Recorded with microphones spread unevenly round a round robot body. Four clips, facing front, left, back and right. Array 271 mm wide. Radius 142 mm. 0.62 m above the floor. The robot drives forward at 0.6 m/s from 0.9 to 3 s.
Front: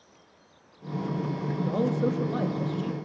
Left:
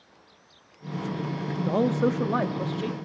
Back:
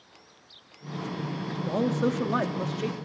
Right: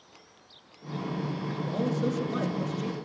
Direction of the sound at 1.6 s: 110° left.